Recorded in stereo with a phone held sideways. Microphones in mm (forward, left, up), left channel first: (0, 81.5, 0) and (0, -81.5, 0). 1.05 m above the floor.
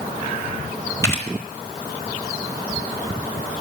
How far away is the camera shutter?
About 3.5 m.